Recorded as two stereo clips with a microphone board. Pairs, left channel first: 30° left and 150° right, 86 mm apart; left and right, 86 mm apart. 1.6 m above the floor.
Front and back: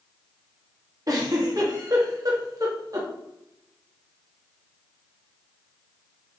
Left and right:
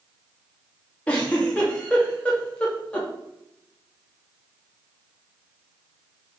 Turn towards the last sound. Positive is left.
turn(degrees=165)